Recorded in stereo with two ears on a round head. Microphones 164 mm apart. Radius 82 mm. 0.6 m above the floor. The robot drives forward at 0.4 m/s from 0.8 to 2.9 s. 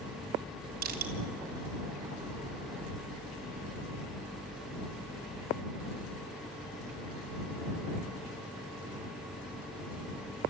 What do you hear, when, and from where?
0.8 s crushing: 50° right (ahead or behind), 3 m